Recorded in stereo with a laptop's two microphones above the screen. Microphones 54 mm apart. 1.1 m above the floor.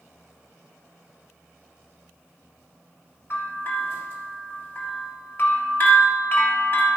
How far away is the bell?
About 1.8 m.